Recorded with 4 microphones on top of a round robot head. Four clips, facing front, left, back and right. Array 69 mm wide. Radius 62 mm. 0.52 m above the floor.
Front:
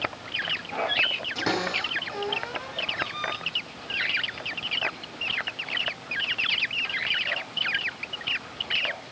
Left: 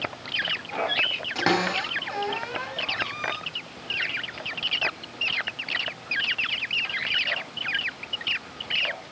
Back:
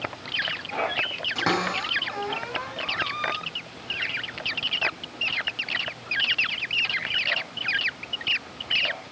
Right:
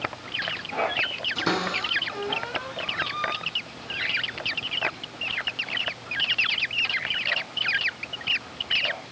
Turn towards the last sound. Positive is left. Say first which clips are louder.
# left 3 dB, back 3 dB
turn(degrees=105)